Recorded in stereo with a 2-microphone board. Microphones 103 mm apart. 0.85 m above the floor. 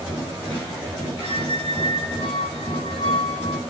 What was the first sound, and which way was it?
A squeak, 55° left (ahead or behind).